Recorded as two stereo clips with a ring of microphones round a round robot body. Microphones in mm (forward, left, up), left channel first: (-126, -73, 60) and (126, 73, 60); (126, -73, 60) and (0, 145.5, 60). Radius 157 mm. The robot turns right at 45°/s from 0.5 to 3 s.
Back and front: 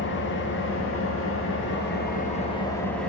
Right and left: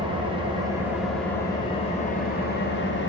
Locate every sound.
0.0 s an engine running: 175° right, 0.9 m; by 3.1 s 65° right, 0.9 m